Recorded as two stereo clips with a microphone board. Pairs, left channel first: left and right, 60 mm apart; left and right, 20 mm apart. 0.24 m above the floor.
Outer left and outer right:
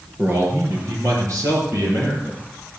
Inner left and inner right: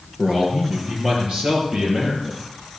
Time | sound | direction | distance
0.2 | a man speaking | 40° right (ahead or behind) | 4.5 m